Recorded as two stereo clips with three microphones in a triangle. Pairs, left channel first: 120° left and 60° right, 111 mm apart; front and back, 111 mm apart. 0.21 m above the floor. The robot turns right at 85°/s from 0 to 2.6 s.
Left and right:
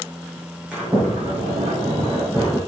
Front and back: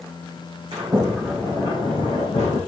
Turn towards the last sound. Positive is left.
turn(degrees=25)